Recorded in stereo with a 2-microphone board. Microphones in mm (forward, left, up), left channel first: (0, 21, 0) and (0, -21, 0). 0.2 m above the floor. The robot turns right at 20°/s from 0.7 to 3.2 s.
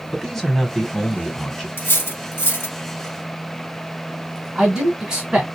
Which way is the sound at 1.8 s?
60° left (ahead or behind).